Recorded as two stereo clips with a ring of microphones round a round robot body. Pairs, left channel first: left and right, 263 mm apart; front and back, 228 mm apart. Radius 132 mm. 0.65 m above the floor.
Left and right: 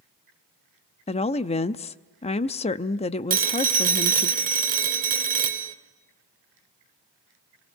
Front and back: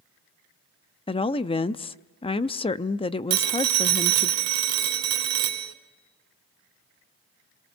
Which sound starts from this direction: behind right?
A phone ringing, at 3.3 s.